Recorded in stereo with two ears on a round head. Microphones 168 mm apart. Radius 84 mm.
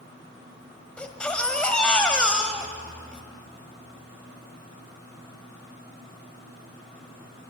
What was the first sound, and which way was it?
A baby crying, 5° left (ahead or behind).